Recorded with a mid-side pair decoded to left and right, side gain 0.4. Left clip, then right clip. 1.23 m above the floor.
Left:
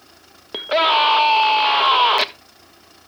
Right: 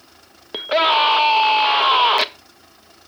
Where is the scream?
5° right, 1.4 m.